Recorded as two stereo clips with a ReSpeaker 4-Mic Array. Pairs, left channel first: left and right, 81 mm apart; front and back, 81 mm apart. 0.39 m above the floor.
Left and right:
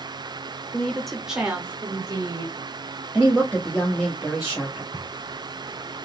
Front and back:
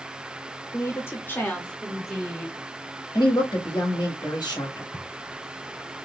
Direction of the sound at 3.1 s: Straight ahead.